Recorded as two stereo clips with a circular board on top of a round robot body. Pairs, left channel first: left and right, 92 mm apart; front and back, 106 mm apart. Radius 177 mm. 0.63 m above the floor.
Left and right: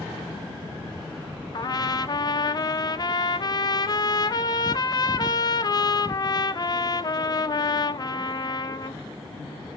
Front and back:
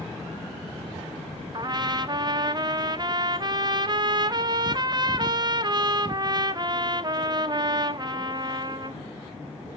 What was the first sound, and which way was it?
A trumpet, 130° left.